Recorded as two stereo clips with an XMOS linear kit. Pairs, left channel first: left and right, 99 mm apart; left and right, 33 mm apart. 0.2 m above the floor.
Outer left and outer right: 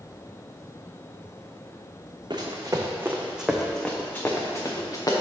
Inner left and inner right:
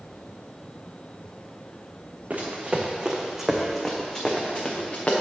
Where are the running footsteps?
45° right (ahead or behind), 1.0 m; by 5.1 s 40° left (ahead or behind), 1.4 m.